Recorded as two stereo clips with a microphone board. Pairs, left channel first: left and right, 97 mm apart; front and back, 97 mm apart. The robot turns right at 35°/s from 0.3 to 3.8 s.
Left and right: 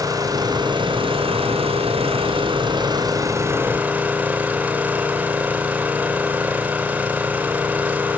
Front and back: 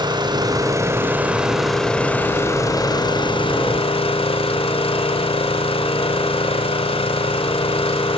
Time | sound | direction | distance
0.0 | an engine running | 140° right | 2.5 m